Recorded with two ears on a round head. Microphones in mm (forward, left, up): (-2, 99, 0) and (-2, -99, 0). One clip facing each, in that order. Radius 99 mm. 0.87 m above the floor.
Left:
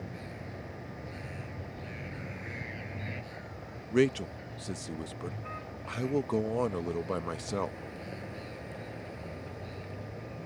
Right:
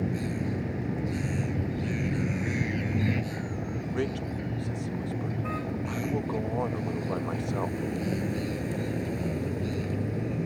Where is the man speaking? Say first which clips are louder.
Left 6 dB; 35° left (ahead or behind).